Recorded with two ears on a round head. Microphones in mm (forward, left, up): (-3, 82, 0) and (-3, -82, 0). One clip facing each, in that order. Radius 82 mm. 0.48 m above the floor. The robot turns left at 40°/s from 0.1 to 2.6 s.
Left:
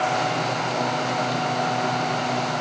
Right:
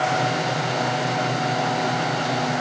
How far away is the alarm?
No alarm in this recording.